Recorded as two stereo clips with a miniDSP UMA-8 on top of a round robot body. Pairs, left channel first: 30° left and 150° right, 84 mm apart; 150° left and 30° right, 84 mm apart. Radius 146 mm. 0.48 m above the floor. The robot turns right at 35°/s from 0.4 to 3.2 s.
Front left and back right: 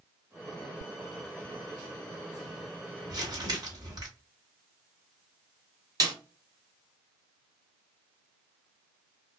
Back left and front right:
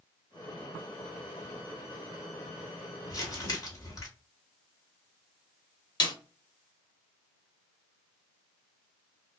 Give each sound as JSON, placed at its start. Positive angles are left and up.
{"t": 3.1, "sound": "crumpling", "azimuth_deg": 180, "distance_m": 1.7}
{"t": 6.0, "sound": "a snare drum", "azimuth_deg": 175, "distance_m": 0.9}